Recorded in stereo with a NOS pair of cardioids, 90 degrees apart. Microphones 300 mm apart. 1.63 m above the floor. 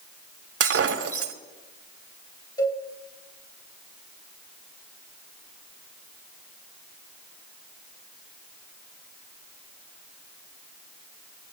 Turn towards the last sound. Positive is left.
turn(degrees=10)